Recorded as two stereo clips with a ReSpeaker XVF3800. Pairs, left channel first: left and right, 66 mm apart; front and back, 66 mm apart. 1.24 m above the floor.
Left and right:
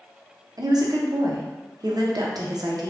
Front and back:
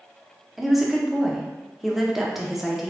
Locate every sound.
0.6 s a woman speaking: 95° right, 0.6 m